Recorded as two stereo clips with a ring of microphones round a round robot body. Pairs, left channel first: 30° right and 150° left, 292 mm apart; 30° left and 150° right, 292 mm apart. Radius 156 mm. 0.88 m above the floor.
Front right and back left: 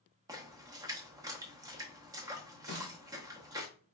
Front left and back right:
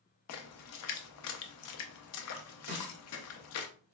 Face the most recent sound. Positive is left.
turn(degrees=-155)